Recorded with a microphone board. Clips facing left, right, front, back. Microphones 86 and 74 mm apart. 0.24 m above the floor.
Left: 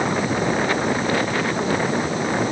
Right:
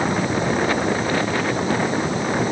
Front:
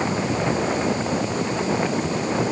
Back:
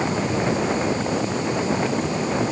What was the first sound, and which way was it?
Only background noise.